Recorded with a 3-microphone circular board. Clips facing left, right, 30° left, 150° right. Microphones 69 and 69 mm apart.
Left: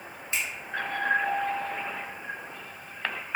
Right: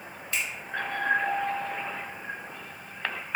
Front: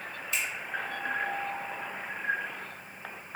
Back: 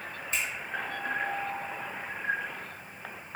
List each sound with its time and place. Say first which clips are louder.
0.3 s a finger snap: even, back 1 dB; 155° left, 1.8 m